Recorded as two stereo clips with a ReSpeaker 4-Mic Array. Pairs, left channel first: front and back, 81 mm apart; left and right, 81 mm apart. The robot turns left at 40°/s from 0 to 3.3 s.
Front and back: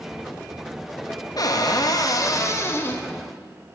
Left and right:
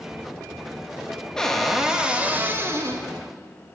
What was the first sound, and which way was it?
A cupboard door, 10° left.